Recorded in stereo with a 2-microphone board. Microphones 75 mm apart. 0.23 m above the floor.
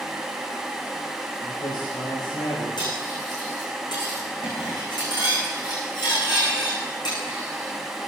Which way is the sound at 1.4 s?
80° left.